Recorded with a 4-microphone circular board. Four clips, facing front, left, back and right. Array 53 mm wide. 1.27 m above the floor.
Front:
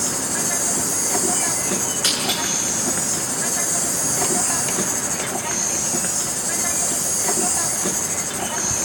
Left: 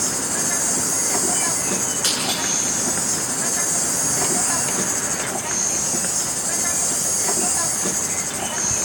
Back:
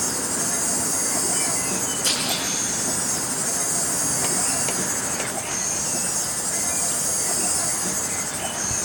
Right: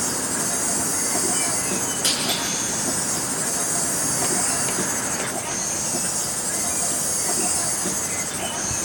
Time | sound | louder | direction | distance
0.0 | an insect | left 1 dB, front 2 dB | 40° left | 1.4 m
2.0 | breaking glass | left 2 dB, front 4 dB | 30° left | 9.5 m